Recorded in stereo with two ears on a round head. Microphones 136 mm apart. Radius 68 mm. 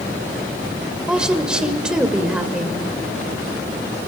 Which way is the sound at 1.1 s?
5° right (ahead or behind).